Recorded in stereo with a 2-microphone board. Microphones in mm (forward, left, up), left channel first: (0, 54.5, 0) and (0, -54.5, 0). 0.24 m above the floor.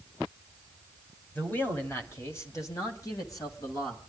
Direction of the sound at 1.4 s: 15° left (ahead or behind).